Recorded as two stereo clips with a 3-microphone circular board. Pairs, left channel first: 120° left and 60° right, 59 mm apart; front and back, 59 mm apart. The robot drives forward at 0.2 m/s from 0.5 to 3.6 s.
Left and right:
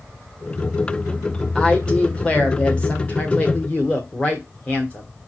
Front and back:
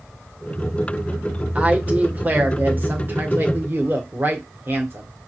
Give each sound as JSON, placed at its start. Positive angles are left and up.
{"t": 1.6, "sound": "a woman speaking", "azimuth_deg": 160, "distance_m": 1.1}